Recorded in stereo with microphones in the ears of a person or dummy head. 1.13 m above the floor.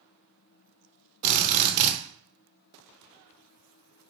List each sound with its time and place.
1.2 s a drill: 40° right (ahead or behind), 0.5 m